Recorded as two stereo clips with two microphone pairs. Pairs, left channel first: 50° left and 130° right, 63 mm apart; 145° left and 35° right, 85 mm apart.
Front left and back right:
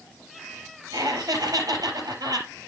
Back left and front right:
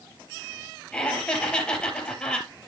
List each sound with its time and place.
0.9 s laughter: 135° right, 4 m